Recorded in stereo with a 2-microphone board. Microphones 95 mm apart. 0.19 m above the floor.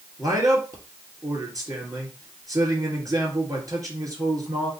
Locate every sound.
0.2 s a man speaking: 40° right (ahead or behind), 2.5 m